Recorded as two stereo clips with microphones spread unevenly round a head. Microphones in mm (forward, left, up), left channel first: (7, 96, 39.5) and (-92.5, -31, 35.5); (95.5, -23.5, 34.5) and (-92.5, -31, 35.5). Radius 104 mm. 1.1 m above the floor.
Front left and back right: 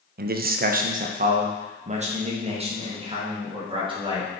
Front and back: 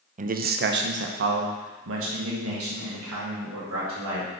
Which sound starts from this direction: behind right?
A man speaking, at 0.2 s.